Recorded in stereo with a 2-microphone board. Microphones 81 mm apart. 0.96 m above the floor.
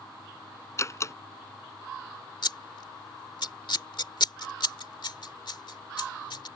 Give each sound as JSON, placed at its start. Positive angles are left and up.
{"t": 0.8, "sound": "a door slam", "side_deg": 35}
{"t": 2.4, "sound": "scissors", "side_deg": 70}